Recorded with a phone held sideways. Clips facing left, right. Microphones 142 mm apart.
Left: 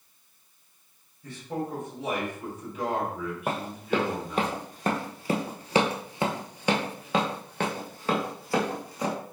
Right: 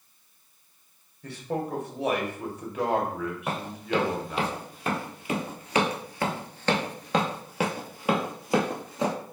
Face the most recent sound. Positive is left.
turn(degrees=-25)  # may be behind; listen again after turning